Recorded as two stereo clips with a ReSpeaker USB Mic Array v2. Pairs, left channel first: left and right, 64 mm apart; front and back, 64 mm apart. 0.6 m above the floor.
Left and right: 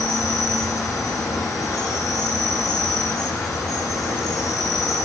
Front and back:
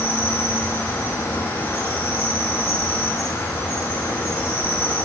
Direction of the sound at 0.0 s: 60° left.